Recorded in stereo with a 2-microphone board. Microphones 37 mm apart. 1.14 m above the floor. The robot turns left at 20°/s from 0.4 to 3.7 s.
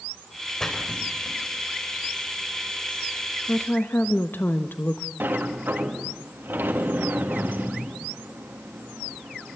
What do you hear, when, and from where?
0.6 s a splash: 20° left (ahead or behind), 4.5 m; by 1.4 s 35° left (ahead or behind), 4.5 m
3.5 s a woman speaking: 80° left, 1.1 m; by 5.1 s 85° left, 1.1 m
5.2 s a sliding door: 75° right (ahead or behind), 2 m